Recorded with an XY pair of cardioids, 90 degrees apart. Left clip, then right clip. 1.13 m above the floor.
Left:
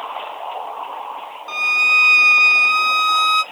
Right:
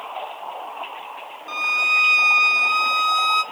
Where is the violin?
25° left, 1.6 m.